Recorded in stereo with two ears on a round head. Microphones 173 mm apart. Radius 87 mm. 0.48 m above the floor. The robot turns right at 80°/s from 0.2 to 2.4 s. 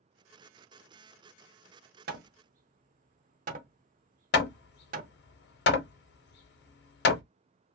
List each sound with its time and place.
2.1 s hammering: 55° right (ahead or behind), 0.6 m; by 5.1 s 45° right (ahead or behind), 0.6 m
4.3 s hammering: 55° left (ahead or behind), 0.6 m